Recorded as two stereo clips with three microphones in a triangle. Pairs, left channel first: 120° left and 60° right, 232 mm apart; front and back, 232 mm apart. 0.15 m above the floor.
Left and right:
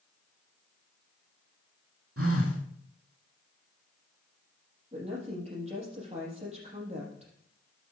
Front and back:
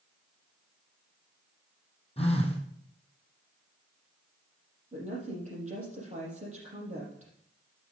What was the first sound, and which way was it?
A phone buzzing, 65° right.